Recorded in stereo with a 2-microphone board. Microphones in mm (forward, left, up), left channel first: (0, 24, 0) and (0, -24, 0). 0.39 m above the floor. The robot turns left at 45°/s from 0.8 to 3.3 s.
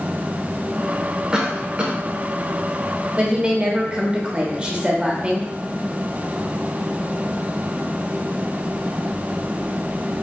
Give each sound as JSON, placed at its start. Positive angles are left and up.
{"t": 1.3, "sound": "a cough", "side_deg": -20, "distance_m": 0.8}
{"t": 3.2, "sound": "a woman speaking", "side_deg": -25, "distance_m": 1.0}